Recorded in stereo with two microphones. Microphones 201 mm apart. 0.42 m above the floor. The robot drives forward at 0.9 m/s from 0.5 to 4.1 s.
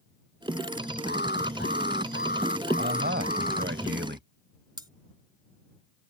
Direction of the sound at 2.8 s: 60° right (ahead or behind).